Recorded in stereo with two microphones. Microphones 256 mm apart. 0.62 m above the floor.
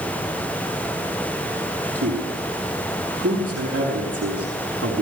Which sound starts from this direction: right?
A man speaking, at 1.9 s.